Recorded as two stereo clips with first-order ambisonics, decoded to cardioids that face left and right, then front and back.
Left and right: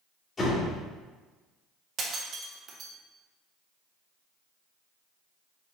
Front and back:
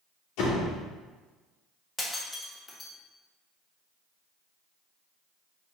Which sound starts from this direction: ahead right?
Breaking glass, at 2.0 s.